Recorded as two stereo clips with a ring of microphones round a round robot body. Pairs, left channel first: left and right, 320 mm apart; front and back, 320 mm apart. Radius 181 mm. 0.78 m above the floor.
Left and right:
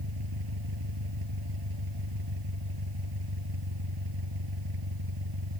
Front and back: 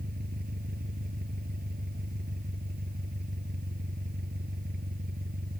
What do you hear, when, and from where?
0.0 s an engine running: 115° right